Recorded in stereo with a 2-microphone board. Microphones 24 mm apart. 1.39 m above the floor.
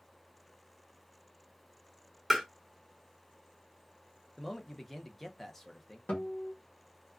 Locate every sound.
2.3 s tapping: 5° right (ahead or behind), 1.2 m
4.4 s a man speaking: centre (ahead or behind), 0.7 m
6.1 s a guitar: 60° left (ahead or behind), 1.2 m